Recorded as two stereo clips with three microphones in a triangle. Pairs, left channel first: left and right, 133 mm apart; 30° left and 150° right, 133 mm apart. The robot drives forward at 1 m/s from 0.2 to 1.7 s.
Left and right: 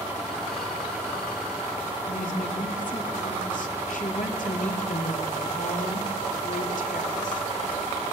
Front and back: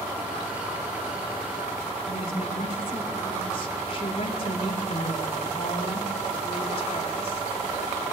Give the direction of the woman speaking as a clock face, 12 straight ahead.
9 o'clock.